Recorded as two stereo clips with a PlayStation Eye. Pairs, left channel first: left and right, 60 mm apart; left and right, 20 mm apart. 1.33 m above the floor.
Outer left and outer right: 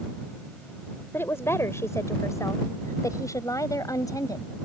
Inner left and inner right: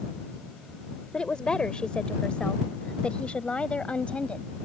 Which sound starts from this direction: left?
A woman speaking, at 1.1 s.